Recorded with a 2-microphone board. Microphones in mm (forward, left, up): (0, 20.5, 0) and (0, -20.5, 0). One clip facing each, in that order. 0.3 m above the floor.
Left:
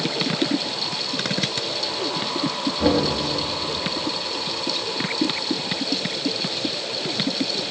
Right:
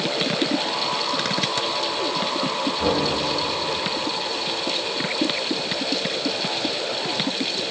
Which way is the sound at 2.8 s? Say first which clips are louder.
Left 4 dB; 65° left (ahead or behind).